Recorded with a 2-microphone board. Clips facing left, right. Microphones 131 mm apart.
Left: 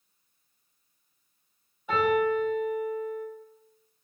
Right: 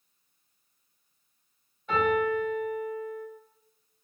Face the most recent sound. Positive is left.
turn(degrees=10)  # may be behind; listen again after turning